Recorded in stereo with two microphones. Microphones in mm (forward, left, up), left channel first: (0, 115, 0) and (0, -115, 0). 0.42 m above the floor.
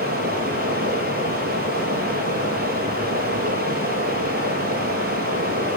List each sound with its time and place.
0.0 s running water: 45° right (ahead or behind), 9 m